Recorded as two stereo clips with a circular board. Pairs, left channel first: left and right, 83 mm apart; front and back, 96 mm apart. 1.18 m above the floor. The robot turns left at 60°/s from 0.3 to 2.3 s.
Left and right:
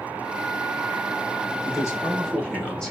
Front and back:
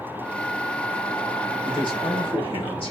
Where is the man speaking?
50° left, 1.4 m; by 2.9 s 10° left, 1.4 m.